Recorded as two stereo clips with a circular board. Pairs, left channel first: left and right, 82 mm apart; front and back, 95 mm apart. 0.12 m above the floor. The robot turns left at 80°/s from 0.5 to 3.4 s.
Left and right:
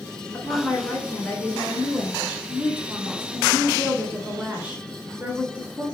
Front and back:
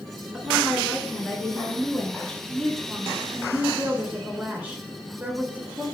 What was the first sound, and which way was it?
A woman speaking, 95° left.